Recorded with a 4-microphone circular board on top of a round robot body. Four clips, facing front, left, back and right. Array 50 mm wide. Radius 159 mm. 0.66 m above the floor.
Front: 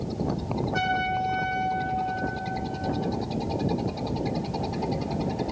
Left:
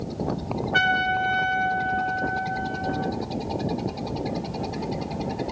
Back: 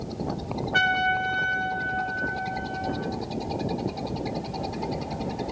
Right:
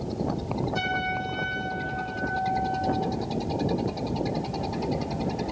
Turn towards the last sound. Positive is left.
turn(degrees=120)